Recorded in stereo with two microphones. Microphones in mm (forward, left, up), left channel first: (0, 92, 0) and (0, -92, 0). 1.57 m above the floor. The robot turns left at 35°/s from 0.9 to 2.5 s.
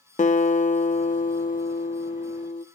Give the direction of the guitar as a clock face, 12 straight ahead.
8 o'clock.